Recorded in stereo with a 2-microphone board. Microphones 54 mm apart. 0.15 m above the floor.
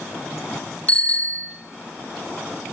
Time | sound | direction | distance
0.9 | a bicycle bell | 25° left (ahead or behind) | 3.5 m